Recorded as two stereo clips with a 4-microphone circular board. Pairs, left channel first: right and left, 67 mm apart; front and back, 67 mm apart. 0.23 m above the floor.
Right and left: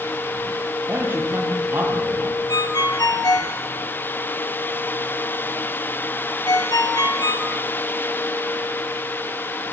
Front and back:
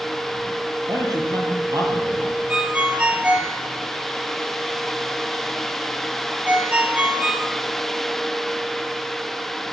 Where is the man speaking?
150° left, 6.5 m.